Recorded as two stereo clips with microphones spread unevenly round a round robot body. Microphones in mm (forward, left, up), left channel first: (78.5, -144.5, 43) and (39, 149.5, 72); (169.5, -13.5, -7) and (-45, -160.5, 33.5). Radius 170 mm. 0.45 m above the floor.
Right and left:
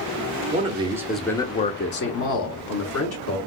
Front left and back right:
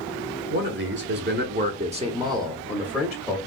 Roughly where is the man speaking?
Behind.